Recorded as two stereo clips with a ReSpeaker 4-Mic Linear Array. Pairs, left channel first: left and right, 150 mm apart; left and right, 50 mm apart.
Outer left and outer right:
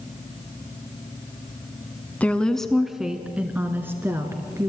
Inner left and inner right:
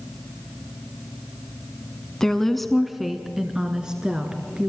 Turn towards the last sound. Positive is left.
turn(degrees=-20)  # may be behind; listen again after turning